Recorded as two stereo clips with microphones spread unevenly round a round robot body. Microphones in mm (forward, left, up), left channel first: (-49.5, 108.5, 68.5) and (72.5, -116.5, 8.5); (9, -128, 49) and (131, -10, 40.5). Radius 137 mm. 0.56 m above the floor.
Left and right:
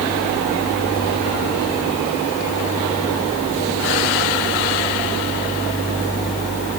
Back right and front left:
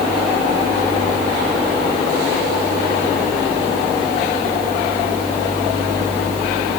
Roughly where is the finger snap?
No finger snap in this recording.